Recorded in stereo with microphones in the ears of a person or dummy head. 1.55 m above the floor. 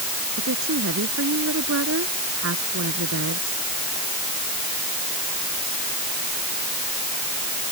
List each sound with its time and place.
0.4 s a woman speaking: 70° right (ahead or behind)